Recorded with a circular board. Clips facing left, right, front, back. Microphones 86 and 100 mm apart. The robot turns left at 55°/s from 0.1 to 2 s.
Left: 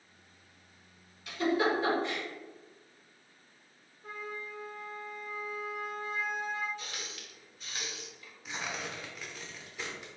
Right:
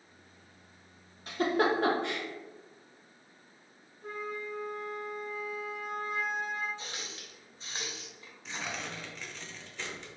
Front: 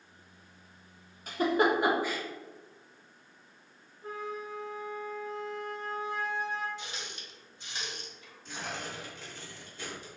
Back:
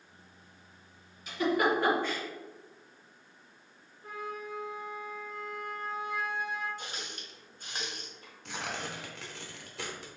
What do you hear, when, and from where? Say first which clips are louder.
1.3 s a giggle: right 1 dB, front 1 dB; 40° right, 0.9 m; by 2.2 s 80° right, 0.9 m
4.0 s a flute: right 4 dB, front 2 dB; 60° right, 1.2 m
6.8 s a running tap: right 1 dB, even; 145° right, 0.9 m
8.4 s tearing paper: even, back 1 dB; 170° left, 0.8 m